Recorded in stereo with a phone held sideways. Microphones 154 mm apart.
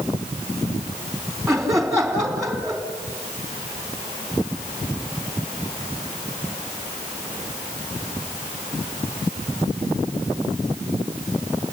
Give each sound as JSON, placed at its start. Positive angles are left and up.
{"t": 1.5, "sound": "laughter", "side_deg": 0, "distance_m": 3.5}